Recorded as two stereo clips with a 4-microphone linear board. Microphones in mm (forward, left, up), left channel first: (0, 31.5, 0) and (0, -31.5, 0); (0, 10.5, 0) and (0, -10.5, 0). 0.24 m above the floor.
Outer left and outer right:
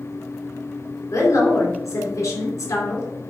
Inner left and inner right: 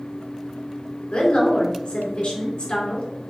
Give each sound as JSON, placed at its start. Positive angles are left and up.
{"t": 1.1, "sound": "a woman speaking", "side_deg": 60, "distance_m": 3.5}